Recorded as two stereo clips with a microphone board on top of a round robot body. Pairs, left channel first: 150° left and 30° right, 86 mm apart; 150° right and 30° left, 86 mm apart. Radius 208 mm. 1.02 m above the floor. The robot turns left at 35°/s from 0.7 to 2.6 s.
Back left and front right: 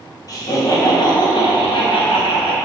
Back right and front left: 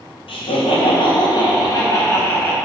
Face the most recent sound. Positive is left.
turn(degrees=130)